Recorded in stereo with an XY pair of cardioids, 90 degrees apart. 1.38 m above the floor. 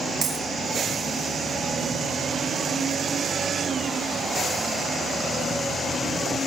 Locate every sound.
0.2 s a dropped coin: 55° right, 5.5 m